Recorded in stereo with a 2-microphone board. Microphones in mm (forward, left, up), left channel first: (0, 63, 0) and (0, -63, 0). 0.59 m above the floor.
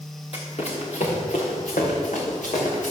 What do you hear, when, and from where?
0.3 s running footsteps: 50° left (ahead or behind), 3.5 m; by 2.9 s 80° left, 5.5 m